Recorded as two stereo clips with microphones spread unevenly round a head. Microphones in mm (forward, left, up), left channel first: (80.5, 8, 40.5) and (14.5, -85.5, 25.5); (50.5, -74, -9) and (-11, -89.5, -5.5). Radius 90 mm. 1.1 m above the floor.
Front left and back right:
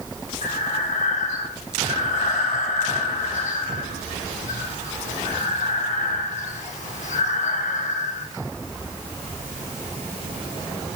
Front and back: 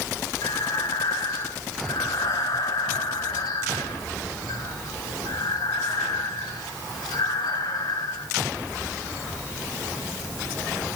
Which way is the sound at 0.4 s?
45° left.